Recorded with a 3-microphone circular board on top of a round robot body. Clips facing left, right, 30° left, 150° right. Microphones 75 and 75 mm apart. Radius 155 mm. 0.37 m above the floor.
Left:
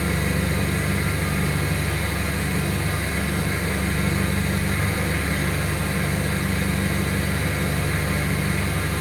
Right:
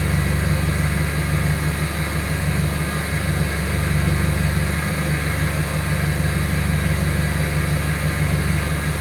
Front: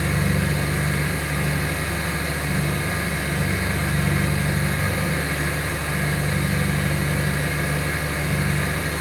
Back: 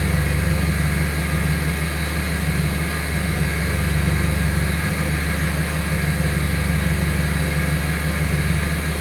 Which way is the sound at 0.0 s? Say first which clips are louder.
Right 1 dB, even; 35° right.